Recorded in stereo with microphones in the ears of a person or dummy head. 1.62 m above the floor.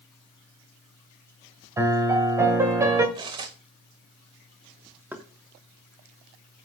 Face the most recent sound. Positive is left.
turn(degrees=-5)  # may be behind; listen again after turning